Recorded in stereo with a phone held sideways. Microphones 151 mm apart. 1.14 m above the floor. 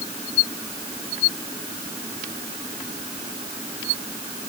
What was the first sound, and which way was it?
Only background noise.